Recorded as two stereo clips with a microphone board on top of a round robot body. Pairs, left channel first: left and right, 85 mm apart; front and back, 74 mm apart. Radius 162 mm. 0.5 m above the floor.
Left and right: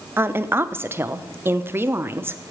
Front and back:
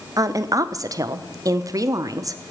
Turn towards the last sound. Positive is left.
turn(degrees=-150)